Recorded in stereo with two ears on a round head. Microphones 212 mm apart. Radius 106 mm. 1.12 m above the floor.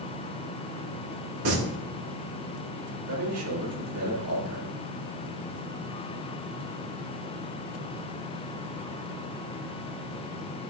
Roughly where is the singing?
Right.